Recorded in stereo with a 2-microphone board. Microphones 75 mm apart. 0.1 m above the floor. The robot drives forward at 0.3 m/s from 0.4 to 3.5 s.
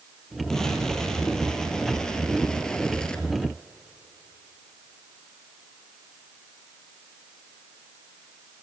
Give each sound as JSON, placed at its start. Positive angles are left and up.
{"t": 0.5, "sound": "an explosion", "side_deg": 5, "distance_m": 2.5}